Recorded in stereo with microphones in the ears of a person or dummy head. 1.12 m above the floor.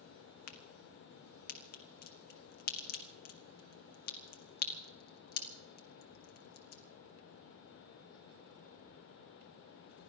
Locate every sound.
0.5 s a crack: 50° left (ahead or behind), 1.6 m